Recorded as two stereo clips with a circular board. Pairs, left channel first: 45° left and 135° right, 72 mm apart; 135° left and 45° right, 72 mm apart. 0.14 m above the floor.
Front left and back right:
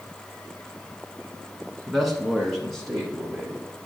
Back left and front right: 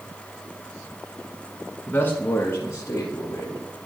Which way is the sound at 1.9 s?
135° left.